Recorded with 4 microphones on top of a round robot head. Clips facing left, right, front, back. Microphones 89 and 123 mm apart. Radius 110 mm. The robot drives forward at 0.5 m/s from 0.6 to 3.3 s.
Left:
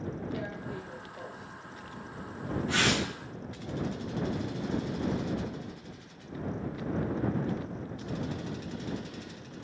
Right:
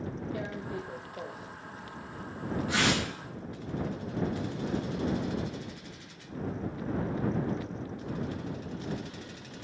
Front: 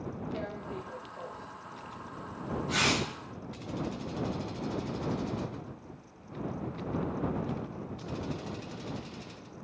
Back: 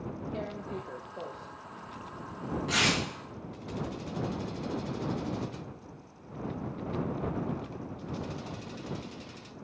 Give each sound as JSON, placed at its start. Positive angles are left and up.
{"t": 0.3, "sound": "tearing paper", "azimuth_deg": -125, "distance_m": 0.6}